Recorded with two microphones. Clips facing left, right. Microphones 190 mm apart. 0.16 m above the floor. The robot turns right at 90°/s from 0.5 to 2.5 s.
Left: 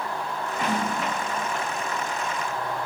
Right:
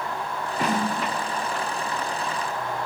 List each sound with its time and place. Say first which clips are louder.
0.6 s a snare drum: right 2 dB; 35° right (ahead or behind), 1.7 m; by 0.9 s 60° right (ahead or behind), 1.7 m